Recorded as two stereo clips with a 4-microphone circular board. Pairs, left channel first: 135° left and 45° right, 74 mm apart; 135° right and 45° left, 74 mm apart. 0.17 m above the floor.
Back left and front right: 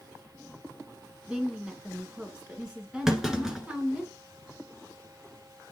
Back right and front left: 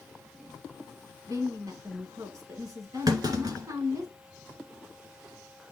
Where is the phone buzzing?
I don't hear a phone buzzing.